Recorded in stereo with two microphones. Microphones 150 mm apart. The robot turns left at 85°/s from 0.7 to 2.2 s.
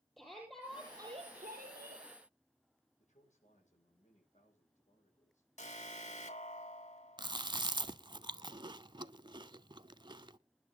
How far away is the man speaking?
About 8.5 m.